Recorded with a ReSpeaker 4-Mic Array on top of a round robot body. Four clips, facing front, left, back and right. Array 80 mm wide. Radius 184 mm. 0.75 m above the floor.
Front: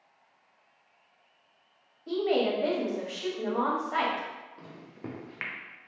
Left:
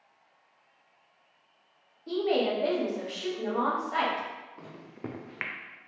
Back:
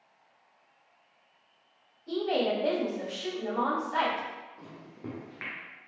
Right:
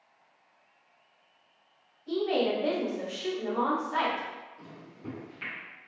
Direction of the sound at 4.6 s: 75° left.